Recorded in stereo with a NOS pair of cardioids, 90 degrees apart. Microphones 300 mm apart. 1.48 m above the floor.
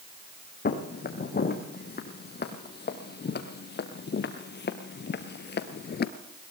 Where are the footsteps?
35° left, 5 m; by 6.1 s 60° left, 1.8 m.